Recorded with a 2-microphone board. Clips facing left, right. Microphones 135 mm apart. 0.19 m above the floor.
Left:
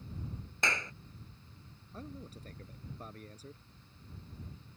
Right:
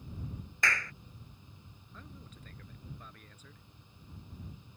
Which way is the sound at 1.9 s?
35° left (ahead or behind).